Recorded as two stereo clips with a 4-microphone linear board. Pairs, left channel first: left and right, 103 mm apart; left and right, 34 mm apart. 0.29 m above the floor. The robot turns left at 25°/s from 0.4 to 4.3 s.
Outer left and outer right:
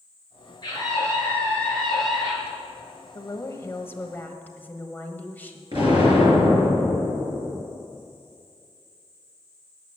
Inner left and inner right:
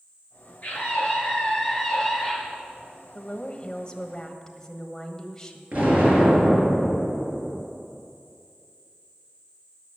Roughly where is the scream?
Ahead left.